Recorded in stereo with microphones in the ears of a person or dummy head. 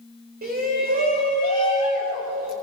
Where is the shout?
45° right (ahead or behind), 5 m; by 2.5 s 40° right (ahead or behind), 7 m.